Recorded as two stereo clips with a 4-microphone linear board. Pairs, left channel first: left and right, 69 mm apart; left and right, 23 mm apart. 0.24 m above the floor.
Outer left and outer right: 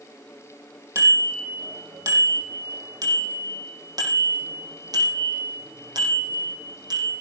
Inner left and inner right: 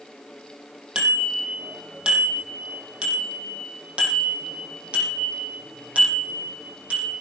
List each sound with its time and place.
0.9 s a bicycle bell: 45° right (ahead or behind), 6 m; by 7.1 s 75° right (ahead or behind), 8 m